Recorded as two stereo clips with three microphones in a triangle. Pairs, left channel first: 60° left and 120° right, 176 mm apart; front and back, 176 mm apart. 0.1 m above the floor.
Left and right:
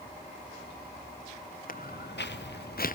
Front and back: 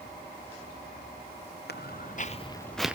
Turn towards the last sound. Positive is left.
turn(degrees=95)